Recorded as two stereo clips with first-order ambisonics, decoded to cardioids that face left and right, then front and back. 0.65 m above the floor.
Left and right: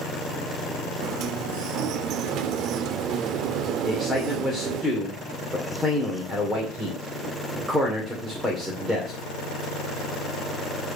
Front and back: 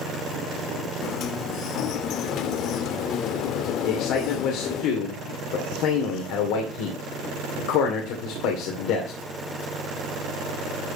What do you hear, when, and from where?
1.0 s a sliding door: 45° right, 0.5 m
3.8 s a man speaking: 5° right, 2.5 m